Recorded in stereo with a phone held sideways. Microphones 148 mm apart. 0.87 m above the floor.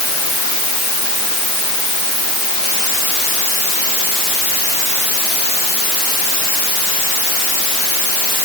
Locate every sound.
Only background noise.